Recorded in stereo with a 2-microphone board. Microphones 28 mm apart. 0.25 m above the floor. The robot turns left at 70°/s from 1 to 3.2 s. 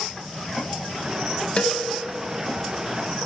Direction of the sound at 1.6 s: 40° left (ahead or behind).